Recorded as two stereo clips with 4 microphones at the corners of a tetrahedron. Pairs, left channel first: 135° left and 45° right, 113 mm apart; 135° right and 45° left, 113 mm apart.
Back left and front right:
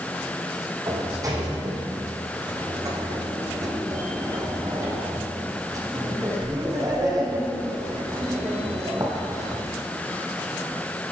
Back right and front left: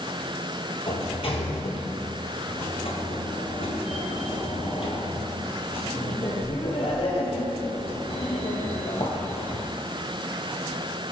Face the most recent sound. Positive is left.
turn(degrees=-100)